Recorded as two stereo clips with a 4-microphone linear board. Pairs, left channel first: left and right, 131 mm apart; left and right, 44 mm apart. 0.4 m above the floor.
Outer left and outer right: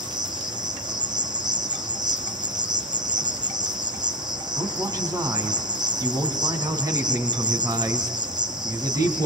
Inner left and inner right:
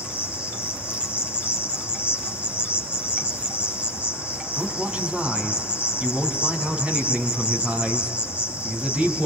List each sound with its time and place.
0.0 s an insect: 35° right (ahead or behind), 4.5 m
4.6 s a man speaking: 25° right (ahead or behind), 4 m